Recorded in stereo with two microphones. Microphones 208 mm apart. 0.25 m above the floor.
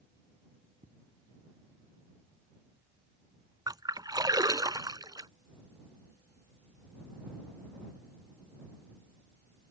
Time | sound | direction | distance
0.8 | footsteps | 40° right (ahead or behind) | ?
3.7 | a splash | 20° right (ahead or behind) | ?